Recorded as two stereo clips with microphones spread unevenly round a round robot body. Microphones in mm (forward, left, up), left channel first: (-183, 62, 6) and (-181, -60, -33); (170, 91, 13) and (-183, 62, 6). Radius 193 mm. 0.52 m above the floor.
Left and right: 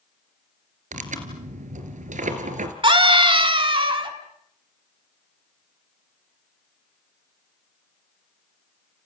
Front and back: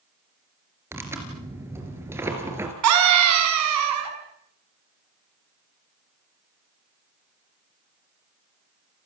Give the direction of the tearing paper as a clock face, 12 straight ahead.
3 o'clock.